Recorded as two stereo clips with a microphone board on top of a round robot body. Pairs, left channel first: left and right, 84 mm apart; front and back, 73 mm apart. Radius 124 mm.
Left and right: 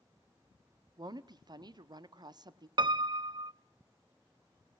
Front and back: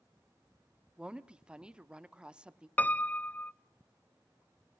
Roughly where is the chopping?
I don't hear chopping.